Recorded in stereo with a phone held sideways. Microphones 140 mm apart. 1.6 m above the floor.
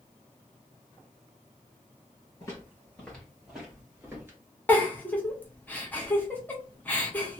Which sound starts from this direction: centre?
A giggle, at 4.7 s.